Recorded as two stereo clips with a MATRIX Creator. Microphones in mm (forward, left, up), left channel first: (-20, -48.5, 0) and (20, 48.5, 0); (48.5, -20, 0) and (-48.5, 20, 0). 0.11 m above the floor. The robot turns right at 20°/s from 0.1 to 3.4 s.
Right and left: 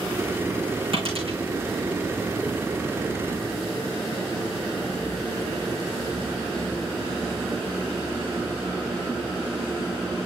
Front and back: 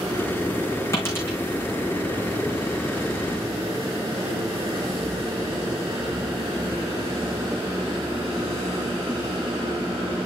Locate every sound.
0.9 s a dropped coin: 40° left, 4.5 m; by 1.4 s 50° left, 4.5 m